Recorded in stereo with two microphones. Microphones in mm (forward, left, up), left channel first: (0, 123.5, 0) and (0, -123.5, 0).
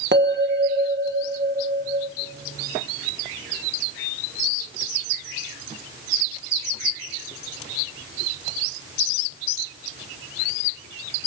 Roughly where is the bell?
Right.